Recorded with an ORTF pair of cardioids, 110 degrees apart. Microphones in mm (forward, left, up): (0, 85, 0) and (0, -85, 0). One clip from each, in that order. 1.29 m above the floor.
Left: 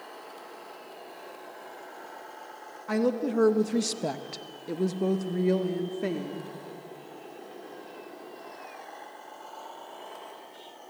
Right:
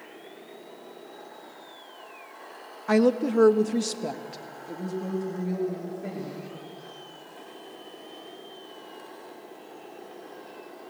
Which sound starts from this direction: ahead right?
A woman speaking, at 2.9 s.